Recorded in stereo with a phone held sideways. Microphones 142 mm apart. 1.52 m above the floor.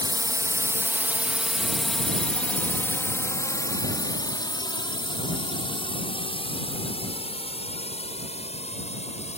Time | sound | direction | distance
0.0 | a drone | 30° right (ahead or behind) | ?